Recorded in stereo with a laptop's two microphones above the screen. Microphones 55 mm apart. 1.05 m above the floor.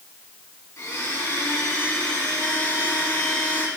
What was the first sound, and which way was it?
A blender, 75° left (ahead or behind).